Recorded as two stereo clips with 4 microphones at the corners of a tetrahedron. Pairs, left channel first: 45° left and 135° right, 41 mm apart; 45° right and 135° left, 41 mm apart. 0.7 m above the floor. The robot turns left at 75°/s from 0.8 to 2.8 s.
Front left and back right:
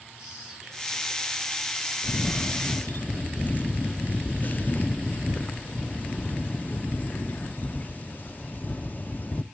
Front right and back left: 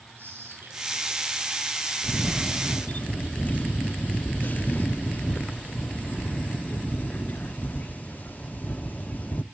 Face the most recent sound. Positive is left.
turn(degrees=0)